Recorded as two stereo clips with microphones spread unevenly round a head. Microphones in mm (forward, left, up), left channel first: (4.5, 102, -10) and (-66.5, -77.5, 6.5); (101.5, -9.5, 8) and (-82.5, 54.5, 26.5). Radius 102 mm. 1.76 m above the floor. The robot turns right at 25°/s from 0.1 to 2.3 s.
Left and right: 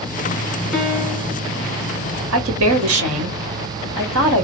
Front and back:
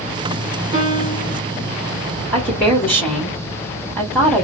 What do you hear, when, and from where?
0.7 s a piano: 170° left, 1.7 m; by 1.4 s 170° right, 1.7 m
2.3 s a woman speaking: 105° right, 2 m